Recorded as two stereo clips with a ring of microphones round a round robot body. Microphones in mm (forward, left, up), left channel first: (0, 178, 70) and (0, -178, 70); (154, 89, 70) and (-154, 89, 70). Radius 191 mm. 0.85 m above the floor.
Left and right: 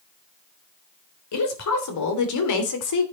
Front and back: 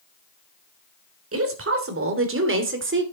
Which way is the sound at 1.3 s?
135° left.